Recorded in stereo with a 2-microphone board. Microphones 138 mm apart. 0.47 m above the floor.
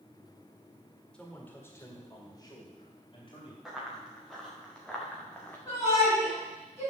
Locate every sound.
1.1 s a man speaking: 5° left (ahead or behind), 1.8 m; by 3.5 s 45° left (ahead or behind), 3 m
3.6 s running footsteps: 5° right (ahead or behind), 4.5 m; by 5.6 s 15° left (ahead or behind), 2.5 m
5.7 s a shout: 30° left (ahead or behind), 4 m